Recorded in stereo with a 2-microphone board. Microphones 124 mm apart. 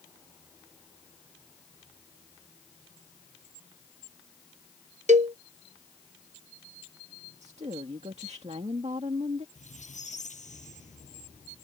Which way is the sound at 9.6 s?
90° left.